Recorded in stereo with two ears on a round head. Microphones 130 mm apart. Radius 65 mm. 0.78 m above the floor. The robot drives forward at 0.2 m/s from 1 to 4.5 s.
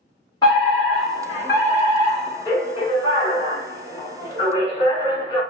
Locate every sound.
0.4 s a fire alarm: 25° left (ahead or behind), 1.7 m; by 5.4 s 30° left (ahead or behind), 1.6 m